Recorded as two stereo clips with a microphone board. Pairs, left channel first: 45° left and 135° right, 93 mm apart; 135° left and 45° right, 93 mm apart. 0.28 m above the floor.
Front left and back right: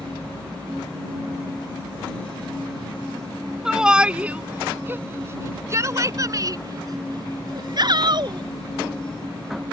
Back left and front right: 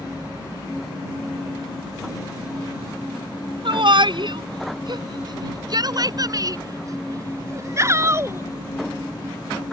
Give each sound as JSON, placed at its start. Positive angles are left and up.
{"t": 3.6, "sound": "a shout", "azimuth_deg": -50}